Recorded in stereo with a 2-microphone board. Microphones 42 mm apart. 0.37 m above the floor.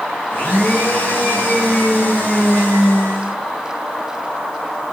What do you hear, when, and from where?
0.3 s a blender: 45° left (ahead or behind), 2.5 m